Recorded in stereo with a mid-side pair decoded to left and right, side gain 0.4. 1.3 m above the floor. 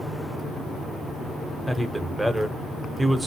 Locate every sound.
1.7 s a man speaking: 5° right, 0.9 m